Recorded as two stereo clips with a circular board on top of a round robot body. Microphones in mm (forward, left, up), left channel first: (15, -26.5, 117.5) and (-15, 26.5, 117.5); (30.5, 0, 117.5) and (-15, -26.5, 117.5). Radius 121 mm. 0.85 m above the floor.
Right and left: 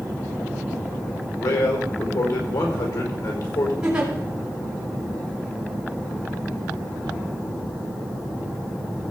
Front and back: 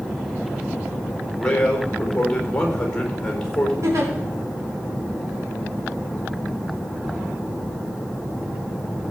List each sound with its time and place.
1.4 s a man speaking: 50° right, 4 m
3.8 s a giggle: 165° right, 3.5 m